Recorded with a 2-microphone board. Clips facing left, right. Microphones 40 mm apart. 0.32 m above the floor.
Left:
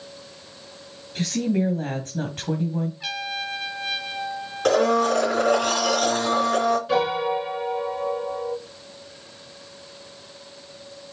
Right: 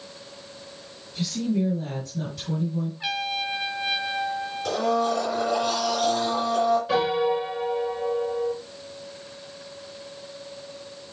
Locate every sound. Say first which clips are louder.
1.1 s a woman speaking: left 2 dB; 55° left (ahead or behind), 1.9 m
3.0 s a trumpet: right 2 dB; 10° right (ahead or behind), 1.4 m
4.7 s a blender: left 5 dB; 65° left (ahead or behind), 3 m
6.9 s a piano: even; 5° right (ahead or behind), 4 m